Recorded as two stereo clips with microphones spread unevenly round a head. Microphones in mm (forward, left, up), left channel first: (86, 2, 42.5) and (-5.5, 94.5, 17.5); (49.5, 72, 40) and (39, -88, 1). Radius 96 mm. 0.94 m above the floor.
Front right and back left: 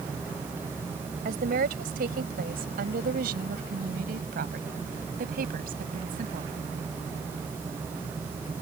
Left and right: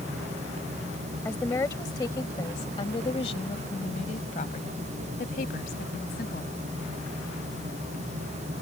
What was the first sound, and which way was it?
A woman speaking, 165° left.